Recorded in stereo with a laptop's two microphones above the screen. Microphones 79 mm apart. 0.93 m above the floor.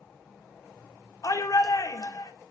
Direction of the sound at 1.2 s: 45° left (ahead or behind).